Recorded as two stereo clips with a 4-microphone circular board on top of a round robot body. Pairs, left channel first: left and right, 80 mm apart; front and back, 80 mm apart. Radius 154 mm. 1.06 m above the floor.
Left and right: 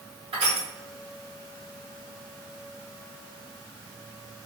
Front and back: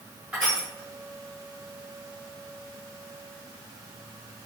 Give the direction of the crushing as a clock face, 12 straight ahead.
3 o'clock.